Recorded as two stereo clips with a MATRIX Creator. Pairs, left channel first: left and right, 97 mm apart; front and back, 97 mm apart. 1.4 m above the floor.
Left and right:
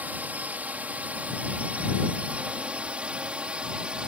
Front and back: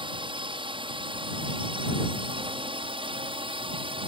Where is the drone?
160° right; by 4.1 s 170° right.